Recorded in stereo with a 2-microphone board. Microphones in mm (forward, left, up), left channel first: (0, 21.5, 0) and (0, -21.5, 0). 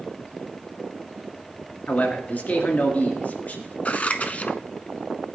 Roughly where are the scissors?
Left.